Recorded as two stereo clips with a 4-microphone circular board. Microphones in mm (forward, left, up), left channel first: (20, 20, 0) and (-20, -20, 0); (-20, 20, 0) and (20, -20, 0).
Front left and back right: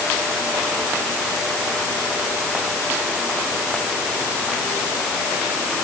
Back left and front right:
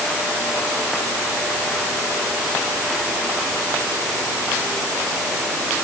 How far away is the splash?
I don't hear a splash.